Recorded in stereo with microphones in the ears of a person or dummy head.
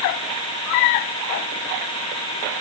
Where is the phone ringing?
I don't hear a phone ringing.